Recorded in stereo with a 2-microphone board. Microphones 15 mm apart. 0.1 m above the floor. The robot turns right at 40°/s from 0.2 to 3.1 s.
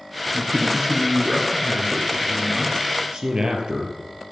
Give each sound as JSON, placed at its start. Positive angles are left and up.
{"t": 0.3, "sound": "a man speaking", "azimuth_deg": -120, "distance_m": 1.8}
{"t": 3.1, "sound": "a man speaking", "side_deg": -50, "distance_m": 2.5}